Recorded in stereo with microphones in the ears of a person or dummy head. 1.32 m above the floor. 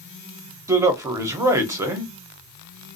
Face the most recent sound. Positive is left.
turn(degrees=-15)  # may be behind; listen again after turning